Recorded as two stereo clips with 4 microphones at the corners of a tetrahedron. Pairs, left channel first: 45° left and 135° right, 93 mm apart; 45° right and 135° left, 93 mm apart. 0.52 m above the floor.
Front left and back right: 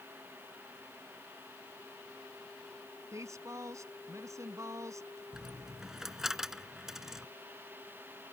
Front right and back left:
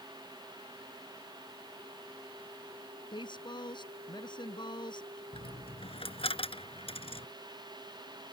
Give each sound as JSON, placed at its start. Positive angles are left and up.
{"t": 3.1, "sound": "a woman speaking", "azimuth_deg": -80}
{"t": 5.3, "sound": "a dropped coin", "azimuth_deg": -50}